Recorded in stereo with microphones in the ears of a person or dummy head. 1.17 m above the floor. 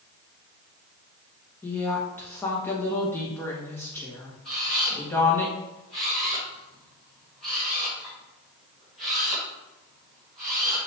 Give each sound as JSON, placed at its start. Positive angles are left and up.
{"t": 1.6, "sound": "a woman speaking", "side_deg": 10, "distance_m": 1.6}
{"t": 4.5, "sound": "a camera shutter", "side_deg": 0, "distance_m": 2.0}